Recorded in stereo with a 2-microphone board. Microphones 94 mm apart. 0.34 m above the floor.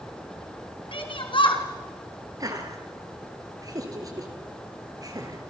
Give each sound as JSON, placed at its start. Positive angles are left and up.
{"t": 0.9, "sound": "a shout", "side_deg": 60, "distance_m": 5.0}
{"t": 2.4, "sound": "laughter", "side_deg": -40, "distance_m": 5.5}